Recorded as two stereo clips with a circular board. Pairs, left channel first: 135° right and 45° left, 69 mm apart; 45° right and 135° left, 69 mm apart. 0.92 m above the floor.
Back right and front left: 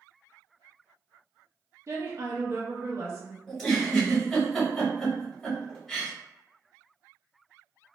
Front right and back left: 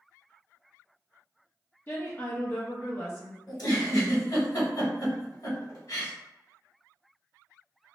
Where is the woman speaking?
5° left, 0.7 m.